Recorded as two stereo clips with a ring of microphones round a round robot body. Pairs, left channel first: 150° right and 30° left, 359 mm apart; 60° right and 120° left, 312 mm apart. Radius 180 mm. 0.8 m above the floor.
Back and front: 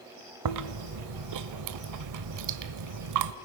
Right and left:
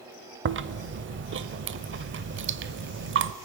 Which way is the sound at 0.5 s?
70° left.